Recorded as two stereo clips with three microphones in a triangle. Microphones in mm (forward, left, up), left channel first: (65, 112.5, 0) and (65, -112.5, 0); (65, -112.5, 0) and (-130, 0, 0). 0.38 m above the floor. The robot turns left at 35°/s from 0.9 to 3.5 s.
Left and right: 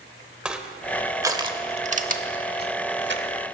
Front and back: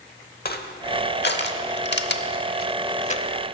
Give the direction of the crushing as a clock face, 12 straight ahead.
12 o'clock.